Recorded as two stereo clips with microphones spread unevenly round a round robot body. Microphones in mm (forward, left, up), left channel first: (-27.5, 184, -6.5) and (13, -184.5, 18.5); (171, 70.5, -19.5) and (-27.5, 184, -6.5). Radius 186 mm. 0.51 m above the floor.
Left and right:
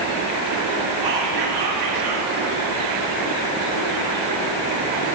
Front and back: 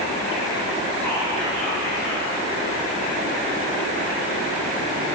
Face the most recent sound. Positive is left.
turn(degrees=-100)